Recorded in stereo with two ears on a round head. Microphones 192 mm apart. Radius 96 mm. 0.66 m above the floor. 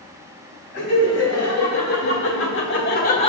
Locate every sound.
0.7 s laughter: 80° left, 3 m; by 3.3 s 25° left (ahead or behind), 0.6 m